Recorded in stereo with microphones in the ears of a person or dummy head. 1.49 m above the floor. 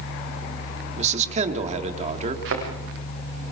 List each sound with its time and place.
1.0 s a man speaking: 35° right (ahead or behind), 3 m
2.5 s a thud: 70° right (ahead or behind), 8 m